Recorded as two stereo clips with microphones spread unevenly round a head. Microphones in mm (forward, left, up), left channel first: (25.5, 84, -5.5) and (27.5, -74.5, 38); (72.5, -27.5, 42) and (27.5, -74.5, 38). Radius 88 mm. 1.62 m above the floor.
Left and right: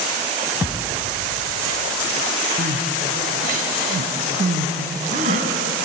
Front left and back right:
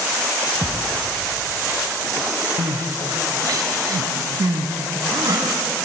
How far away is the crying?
About 2.5 m.